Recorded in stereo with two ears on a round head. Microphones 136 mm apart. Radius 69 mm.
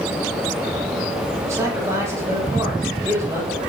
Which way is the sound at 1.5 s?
20° right (ahead or behind).